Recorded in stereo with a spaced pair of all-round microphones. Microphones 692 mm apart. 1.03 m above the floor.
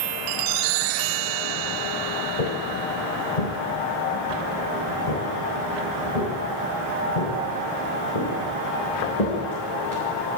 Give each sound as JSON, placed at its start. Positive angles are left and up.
{"t": 2.4, "sound": "footsteps", "side_deg": 65, "distance_m": 2.5}